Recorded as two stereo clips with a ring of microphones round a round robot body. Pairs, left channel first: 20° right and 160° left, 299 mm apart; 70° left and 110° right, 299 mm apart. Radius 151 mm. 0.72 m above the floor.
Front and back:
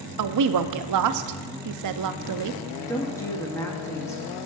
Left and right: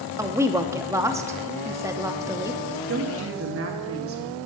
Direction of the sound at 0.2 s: 170° left.